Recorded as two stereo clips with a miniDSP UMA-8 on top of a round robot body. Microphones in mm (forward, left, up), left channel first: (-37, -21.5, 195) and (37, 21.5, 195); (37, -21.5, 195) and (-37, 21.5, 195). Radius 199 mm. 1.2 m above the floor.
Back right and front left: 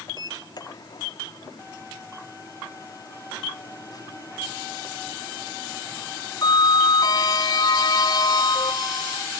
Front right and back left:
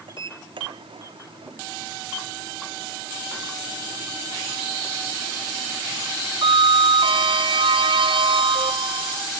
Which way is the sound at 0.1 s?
170° left.